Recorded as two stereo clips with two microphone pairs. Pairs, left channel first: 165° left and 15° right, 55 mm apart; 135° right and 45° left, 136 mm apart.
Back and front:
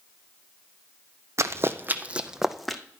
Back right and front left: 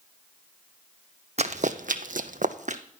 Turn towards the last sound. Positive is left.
turn(degrees=80)